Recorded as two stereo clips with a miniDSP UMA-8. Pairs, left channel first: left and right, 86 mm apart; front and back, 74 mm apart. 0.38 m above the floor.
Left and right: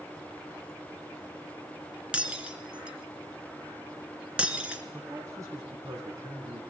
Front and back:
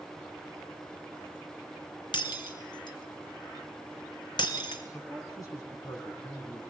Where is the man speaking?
40° right, 4 m.